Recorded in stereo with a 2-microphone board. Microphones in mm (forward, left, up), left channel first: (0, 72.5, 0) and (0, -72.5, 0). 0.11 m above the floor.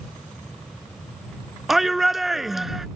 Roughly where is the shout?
Centre.